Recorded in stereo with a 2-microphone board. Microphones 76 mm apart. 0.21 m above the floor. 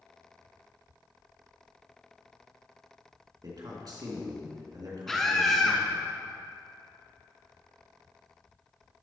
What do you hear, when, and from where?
3.4 s a man speaking: 55° right (ahead or behind), 3 m
5.1 s a scream: 5° left (ahead or behind), 2.5 m